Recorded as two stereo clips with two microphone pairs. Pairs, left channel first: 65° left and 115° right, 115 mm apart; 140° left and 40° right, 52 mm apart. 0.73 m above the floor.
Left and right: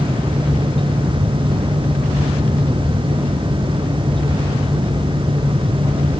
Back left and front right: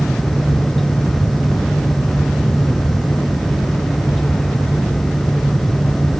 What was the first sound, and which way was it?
Only background noise.